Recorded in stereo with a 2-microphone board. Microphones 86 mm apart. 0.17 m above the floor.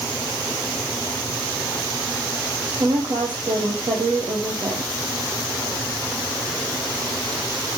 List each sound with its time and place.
2.8 s a woman speaking: 60° right (ahead or behind), 4.5 m